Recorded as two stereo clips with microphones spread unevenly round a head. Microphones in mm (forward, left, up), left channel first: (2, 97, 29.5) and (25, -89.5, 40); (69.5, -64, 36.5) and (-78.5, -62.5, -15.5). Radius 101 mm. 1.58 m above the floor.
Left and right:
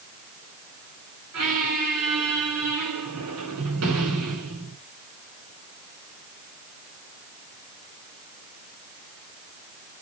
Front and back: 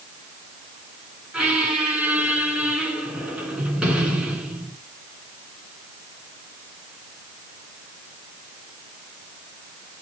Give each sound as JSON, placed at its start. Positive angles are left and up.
{"t": 1.3, "sound": "a squeak", "azimuth_deg": -95, "distance_m": 3.5}